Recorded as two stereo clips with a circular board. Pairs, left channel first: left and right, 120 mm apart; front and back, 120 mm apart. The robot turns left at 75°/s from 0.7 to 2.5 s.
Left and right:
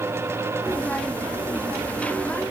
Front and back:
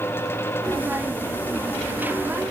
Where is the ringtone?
No ringtone in this recording.